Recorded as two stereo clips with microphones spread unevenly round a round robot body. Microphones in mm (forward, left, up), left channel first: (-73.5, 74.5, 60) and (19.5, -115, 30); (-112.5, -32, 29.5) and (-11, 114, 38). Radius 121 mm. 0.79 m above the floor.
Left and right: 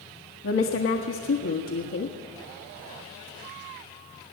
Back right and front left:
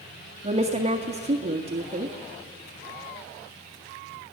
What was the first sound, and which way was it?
A woman speaking, 105° left.